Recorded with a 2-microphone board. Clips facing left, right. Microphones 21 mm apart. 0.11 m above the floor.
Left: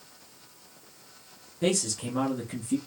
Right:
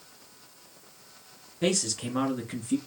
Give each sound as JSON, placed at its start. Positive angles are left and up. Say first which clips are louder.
{"t": 1.6, "sound": "a man speaking", "louder": "even", "side_deg": -25, "distance_m": 1.8}